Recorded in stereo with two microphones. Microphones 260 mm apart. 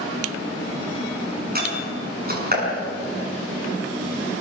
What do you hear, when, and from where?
1.6 s a door slam: 35° right (ahead or behind), 6 m